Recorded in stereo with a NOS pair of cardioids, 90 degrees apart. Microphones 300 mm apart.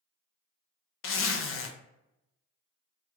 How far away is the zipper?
About 0.6 m.